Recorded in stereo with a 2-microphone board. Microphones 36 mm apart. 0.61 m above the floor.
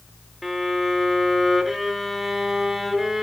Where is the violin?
5° right (ahead or behind), 1.0 m.